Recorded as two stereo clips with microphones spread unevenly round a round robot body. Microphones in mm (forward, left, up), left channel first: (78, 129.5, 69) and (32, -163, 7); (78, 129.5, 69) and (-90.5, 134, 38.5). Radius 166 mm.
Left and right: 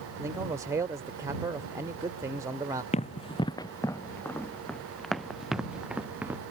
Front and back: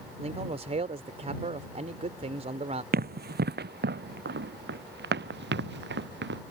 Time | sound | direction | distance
0.2 | a man speaking | 165° right | ?
2.9 | running footsteps | 150° left | ?